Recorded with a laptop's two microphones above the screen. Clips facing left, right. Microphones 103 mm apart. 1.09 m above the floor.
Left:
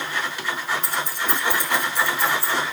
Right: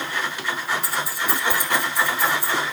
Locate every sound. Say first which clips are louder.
0.8 s keys jangling: even; 5° right (ahead or behind), 1.5 m; by 2.5 s 15° right (ahead or behind), 4 m